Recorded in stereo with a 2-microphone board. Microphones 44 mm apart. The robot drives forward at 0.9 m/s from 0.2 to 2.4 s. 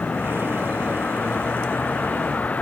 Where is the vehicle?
35° left (ahead or behind).